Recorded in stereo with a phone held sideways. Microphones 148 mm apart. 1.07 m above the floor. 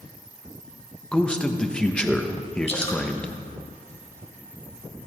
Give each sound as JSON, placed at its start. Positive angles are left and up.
{"t": 1.1, "sound": "a man speaking", "side_deg": 5, "distance_m": 1.2}
{"t": 2.7, "sound": "dripping", "side_deg": 40, "distance_m": 2.5}